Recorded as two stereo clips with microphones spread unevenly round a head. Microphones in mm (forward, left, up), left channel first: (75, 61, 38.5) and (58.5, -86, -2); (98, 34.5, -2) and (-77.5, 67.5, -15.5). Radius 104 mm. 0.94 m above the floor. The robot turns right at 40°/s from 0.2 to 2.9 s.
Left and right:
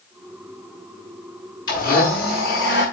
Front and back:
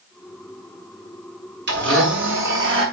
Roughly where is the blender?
Behind left.